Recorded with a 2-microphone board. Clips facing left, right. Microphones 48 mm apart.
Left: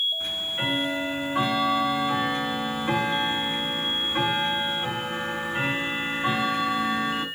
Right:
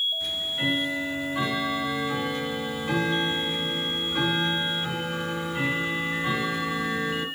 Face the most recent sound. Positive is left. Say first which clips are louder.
# right 1 dB
turn(degrees=35)  # may be behind; listen again after turning